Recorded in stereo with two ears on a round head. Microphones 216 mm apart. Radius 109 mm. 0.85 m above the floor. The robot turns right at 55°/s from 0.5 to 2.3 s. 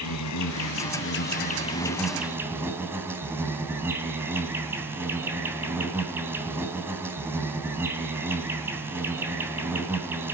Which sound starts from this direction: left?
An insect, at 0.0 s.